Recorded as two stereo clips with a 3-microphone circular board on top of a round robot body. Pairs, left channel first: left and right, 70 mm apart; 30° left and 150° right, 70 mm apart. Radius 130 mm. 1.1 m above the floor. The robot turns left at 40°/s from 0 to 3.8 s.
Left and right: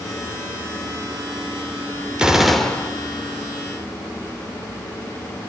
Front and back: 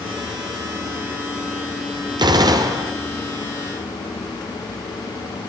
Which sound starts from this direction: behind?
A gunshot, at 2.2 s.